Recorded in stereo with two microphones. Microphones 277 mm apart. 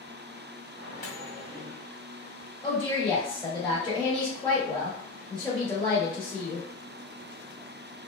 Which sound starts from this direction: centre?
A woman speaking, at 2.6 s.